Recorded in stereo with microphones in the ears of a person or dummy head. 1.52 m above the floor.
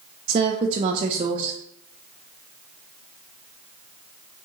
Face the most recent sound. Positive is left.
turn(degrees=-30)  # may be behind; listen again after turning